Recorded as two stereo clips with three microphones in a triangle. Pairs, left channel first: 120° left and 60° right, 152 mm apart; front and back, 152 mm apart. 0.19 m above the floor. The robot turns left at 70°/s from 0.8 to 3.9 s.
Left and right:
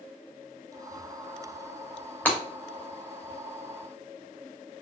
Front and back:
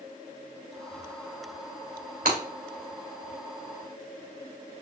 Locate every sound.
2.2 s breaking glass: 160° right, 2.5 m; by 2.4 s 170° right, 2.5 m